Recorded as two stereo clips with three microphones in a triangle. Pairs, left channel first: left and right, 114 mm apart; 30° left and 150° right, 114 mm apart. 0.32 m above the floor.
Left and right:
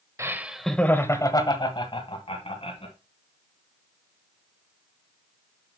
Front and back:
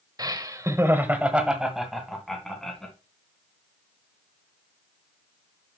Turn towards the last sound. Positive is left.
turn(degrees=115)